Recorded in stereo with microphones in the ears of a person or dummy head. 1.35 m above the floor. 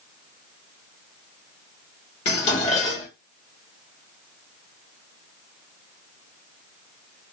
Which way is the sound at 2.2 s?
30° left (ahead or behind).